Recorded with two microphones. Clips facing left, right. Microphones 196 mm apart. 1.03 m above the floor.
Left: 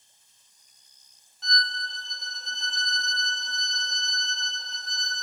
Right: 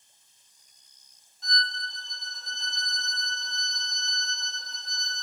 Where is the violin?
70° left (ahead or behind), 0.8 m.